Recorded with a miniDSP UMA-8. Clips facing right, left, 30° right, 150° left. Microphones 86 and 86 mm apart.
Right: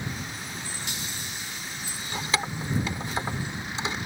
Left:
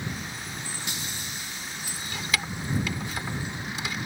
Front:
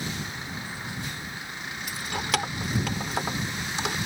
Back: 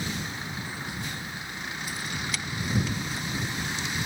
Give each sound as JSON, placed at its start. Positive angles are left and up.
{"t": 1.9, "sound": "keys jangling", "azimuth_deg": -30}